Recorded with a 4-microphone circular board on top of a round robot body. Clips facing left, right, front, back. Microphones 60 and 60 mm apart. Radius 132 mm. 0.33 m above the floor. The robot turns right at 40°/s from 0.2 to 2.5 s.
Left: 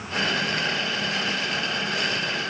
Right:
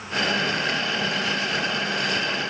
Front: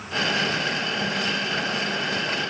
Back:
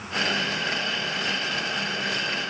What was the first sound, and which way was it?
Only background noise.